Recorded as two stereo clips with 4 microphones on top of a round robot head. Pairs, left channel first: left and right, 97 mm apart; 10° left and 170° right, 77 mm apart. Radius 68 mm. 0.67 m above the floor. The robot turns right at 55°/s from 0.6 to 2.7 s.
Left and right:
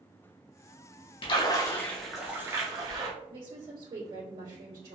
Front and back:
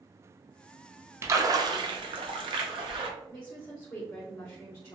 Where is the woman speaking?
60° right, 1.8 m.